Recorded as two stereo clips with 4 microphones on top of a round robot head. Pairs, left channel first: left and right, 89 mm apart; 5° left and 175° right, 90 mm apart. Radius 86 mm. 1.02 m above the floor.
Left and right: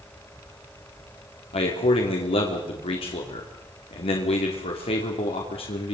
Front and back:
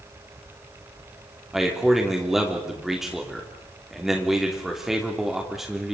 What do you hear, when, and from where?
1.5 s a man speaking: 100° left, 2.5 m